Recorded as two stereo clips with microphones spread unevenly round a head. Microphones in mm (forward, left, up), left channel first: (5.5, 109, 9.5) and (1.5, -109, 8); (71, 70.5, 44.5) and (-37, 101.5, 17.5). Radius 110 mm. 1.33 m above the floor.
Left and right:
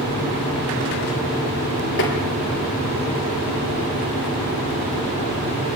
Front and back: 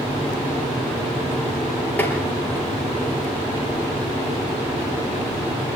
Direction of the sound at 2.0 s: 55° left.